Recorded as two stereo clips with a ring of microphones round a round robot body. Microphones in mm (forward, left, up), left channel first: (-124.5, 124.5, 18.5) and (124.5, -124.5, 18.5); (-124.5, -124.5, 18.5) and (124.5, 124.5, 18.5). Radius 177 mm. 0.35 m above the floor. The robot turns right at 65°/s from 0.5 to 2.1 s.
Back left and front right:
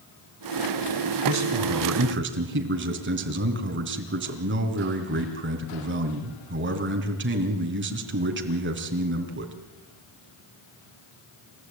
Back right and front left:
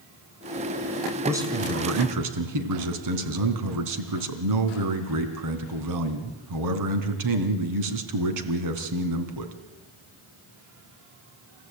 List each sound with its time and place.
1.2 s a man speaking: 45° right, 3 m; by 9.5 s 10° left, 3 m